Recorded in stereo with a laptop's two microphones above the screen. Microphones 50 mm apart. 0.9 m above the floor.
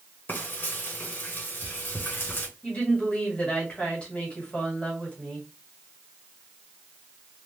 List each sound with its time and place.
0.3 s frying: 45° left (ahead or behind), 1.4 m
2.6 s a woman speaking: 25° left (ahead or behind), 1.9 m